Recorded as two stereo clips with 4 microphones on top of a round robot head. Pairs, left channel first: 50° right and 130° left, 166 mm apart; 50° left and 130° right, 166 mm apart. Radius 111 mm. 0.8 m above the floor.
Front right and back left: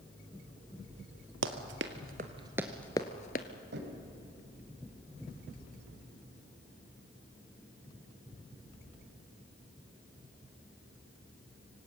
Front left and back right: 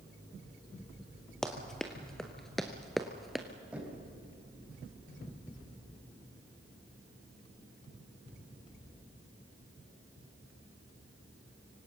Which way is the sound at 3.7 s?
145° left.